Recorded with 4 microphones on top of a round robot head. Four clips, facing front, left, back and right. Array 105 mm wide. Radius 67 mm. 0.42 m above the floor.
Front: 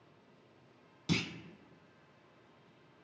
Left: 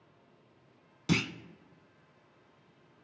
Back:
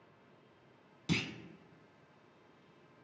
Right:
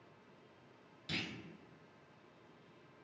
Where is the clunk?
90° left, 0.6 m.